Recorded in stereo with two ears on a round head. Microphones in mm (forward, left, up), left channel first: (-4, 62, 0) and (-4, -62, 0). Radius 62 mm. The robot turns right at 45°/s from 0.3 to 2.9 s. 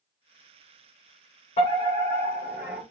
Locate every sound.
1.6 s a fire alarm: 130° left, 6 m; by 2.8 s 170° right, 6 m